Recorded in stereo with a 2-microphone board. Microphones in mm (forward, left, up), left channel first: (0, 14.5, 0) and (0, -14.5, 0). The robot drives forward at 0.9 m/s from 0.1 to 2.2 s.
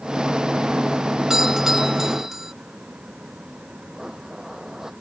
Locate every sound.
1.3 s a doorbell: 15° right (ahead or behind)
4.0 s a blender: 20° right (ahead or behind)